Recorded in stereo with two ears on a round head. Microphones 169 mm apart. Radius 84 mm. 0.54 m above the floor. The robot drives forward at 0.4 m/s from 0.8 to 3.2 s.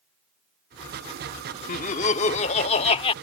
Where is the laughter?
40° left (ahead or behind); by 3.1 s 30° left (ahead or behind).